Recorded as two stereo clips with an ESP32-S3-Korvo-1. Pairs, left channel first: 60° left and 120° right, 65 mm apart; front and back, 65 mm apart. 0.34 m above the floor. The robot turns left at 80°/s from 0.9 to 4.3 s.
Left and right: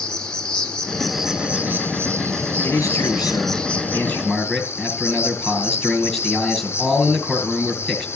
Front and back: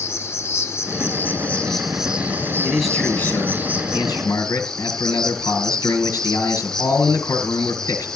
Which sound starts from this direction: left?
A man speaking, at 2.6 s.